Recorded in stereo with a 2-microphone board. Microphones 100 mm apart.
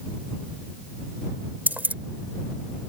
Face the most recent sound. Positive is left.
turn(degrees=-15)  # may be behind; listen again after turning